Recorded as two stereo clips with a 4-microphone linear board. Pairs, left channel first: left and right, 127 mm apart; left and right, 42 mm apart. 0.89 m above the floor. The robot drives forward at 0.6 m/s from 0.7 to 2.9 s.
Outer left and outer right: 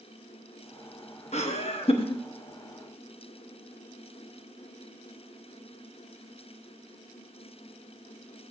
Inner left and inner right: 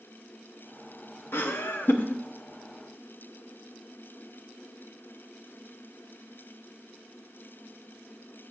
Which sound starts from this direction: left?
Laughter, at 1.3 s.